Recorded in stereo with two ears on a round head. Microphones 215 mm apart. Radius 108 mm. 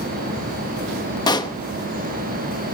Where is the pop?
20° left (ahead or behind), 0.8 m.